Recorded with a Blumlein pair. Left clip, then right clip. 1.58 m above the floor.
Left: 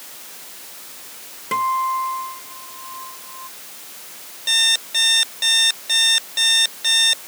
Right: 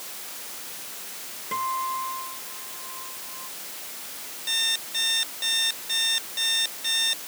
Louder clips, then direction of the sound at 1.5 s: Left 8 dB; 65° left.